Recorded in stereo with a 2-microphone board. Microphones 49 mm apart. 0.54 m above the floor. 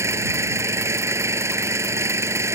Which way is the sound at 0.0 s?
80° right.